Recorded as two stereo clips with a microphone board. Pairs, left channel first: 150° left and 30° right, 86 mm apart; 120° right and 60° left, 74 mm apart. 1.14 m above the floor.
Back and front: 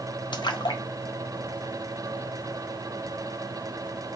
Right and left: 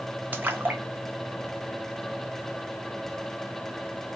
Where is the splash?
125° left, 0.6 m.